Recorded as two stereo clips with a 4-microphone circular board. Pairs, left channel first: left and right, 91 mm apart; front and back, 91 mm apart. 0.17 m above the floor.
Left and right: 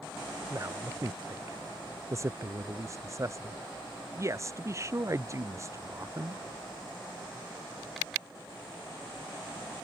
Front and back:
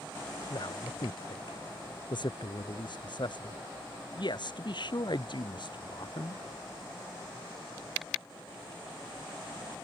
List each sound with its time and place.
0.5 s a man speaking: 35° right